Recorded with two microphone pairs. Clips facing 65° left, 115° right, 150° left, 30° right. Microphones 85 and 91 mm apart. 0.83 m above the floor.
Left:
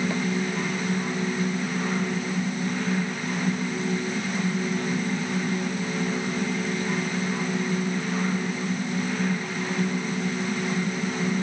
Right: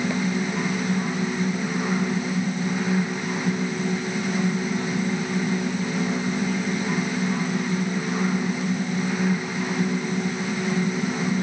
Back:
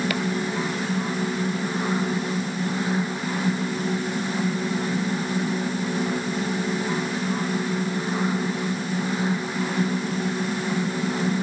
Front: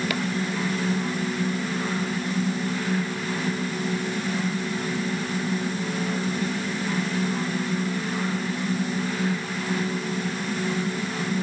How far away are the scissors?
No scissors in this recording.